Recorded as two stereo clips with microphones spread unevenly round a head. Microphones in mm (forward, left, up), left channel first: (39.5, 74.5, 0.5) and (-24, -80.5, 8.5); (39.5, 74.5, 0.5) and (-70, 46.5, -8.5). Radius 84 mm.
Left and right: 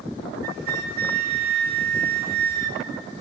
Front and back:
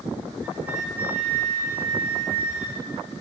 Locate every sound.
0.4 s a flute: 85° right, 1.1 m